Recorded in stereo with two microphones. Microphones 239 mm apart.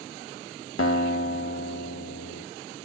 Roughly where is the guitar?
Left.